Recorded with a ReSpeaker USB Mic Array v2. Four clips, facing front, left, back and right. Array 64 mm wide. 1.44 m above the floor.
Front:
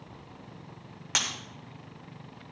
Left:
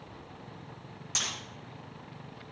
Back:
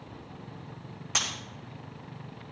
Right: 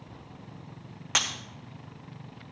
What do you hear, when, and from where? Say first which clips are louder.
1.1 s breaking glass: right 8 dB, front 1 dB; 65° right, 3 m